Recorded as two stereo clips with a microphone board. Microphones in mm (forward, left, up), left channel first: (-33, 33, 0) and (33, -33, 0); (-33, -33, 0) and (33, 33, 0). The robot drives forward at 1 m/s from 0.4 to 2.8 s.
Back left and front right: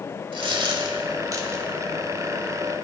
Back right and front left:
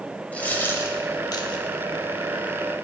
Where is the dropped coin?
60° right, 1.7 m; by 1.6 s 105° right, 1.6 m.